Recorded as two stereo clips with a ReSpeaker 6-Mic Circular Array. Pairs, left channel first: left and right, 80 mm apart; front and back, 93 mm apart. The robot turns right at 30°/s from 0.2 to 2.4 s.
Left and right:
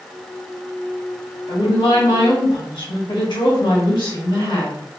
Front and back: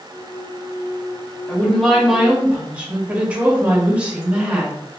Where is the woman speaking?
75° left, 1.6 m; by 4.8 s 105° left, 1.6 m.